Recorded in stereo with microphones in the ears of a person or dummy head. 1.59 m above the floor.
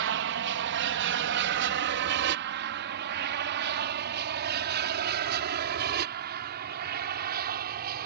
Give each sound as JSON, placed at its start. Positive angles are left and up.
{"t": 0.0, "sound": "an aircraft", "side_deg": -65}